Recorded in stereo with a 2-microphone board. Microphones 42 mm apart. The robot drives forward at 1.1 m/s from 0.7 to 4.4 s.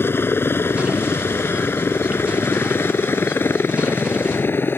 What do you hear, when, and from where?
0.0 s a helicopter: 65° left (ahead or behind); by 4.8 s 60° left (ahead or behind)